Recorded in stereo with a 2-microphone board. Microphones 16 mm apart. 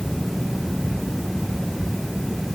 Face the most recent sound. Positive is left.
No sound to turn to.